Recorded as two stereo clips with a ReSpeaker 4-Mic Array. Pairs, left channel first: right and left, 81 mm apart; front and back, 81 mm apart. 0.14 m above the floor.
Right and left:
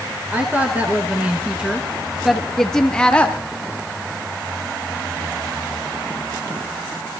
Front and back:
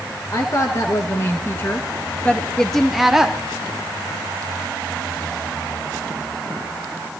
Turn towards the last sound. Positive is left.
turn(degrees=-120)